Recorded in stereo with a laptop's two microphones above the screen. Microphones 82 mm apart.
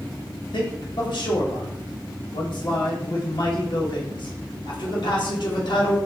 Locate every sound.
0.5 s a man speaking: 65° left (ahead or behind), 1.0 m